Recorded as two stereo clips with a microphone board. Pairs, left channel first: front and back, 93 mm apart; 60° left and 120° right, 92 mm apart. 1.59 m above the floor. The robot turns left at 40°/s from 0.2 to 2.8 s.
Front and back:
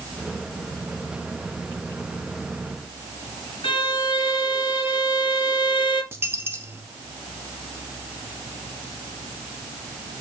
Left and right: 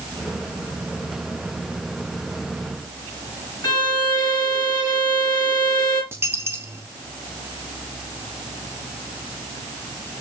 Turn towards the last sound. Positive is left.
turn(degrees=-150)